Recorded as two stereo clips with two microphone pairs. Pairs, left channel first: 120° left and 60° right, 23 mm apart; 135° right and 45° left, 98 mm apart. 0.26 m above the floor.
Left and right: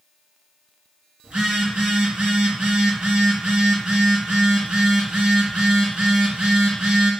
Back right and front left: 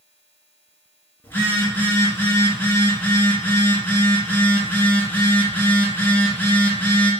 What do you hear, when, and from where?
1.2 s a phone buzzing: 65° right, 1.7 m